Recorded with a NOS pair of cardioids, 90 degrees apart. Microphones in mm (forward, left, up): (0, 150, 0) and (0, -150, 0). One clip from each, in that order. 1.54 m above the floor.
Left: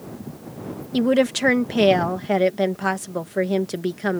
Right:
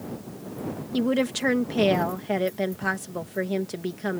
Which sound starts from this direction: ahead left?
A woman speaking, at 0.9 s.